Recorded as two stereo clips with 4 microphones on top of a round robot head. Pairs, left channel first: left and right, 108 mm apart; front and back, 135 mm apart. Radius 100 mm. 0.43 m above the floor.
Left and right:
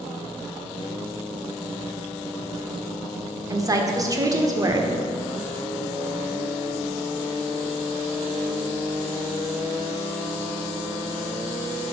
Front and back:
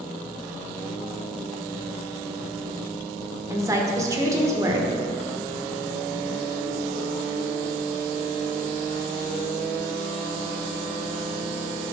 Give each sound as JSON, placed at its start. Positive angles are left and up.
{"t": 3.5, "sound": "a woman speaking", "azimuth_deg": -125, "distance_m": 1.4}